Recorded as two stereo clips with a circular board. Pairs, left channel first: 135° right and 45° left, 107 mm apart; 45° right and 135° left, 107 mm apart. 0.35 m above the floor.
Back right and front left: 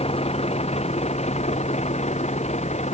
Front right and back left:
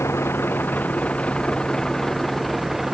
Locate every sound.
0.0 s a vehicle: 110° right; by 2.9 s 140° right